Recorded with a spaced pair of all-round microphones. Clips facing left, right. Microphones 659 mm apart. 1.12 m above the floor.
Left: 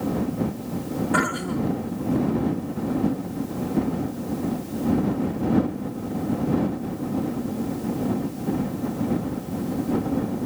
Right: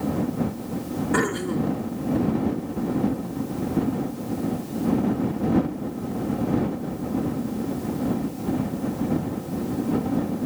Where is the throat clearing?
15° left (ahead or behind).